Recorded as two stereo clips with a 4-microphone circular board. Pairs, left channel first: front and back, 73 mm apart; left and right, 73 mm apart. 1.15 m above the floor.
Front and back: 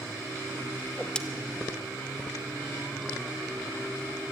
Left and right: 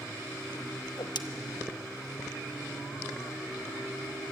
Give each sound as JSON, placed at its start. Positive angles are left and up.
{"t": 0.8, "sound": "a whoosh", "azimuth_deg": 75, "distance_m": 1.1}